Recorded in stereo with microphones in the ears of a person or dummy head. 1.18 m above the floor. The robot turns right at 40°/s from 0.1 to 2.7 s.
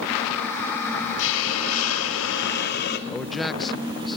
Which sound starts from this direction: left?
A hiss, at 1.2 s.